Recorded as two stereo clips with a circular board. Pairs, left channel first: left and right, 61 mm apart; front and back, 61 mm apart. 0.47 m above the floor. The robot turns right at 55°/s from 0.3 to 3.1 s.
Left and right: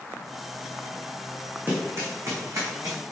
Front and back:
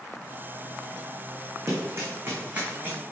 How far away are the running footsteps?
About 2 m.